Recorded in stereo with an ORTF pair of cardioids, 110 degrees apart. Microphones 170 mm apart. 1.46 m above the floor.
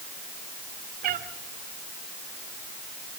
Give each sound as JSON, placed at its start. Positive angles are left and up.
{"t": 1.0, "sound": "a cat meowing", "azimuth_deg": -60, "distance_m": 2.5}